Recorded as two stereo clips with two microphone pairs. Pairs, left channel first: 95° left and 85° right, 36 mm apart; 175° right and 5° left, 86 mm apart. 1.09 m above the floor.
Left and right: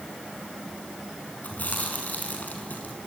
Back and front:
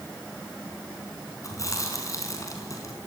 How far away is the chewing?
About 5.5 m.